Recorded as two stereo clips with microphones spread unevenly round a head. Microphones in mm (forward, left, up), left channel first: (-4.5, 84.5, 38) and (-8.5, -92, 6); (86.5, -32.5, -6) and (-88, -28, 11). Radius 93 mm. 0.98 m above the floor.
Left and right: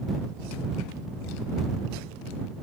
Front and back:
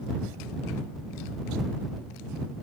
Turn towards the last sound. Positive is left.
No sound to turn to.